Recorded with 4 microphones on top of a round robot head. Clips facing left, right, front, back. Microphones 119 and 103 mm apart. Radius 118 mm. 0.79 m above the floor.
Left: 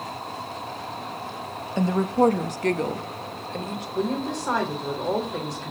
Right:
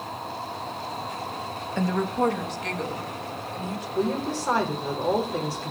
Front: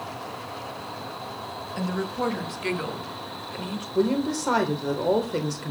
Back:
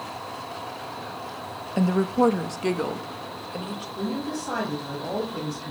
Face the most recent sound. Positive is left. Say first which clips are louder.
# even, front 7 dB
turn(degrees=-5)